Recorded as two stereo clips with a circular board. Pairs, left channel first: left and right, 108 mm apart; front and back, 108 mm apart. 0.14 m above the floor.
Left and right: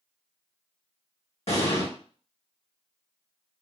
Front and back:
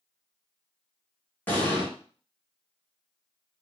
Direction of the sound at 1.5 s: 70° left.